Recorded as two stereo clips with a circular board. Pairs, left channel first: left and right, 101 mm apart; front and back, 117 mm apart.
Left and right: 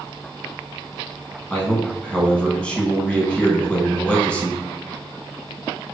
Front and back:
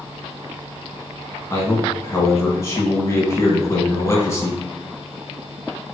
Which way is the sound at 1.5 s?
25° left.